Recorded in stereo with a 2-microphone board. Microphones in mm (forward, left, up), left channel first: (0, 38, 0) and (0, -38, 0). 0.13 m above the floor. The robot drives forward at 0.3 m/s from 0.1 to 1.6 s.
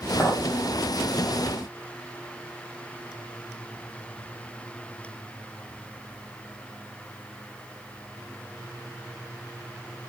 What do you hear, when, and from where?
0.2 s a clink: 15° left (ahead or behind), 1.9 m